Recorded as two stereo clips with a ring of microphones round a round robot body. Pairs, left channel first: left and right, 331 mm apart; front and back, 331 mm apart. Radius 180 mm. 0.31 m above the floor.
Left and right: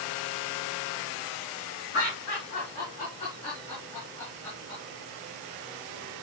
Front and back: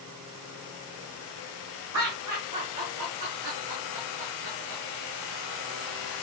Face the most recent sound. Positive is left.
turn(degrees=180)